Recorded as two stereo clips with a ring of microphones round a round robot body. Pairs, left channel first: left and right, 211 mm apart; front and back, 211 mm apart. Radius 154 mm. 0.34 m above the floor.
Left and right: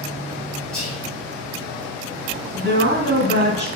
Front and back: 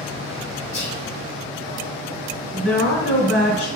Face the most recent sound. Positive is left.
turn(degrees=-65)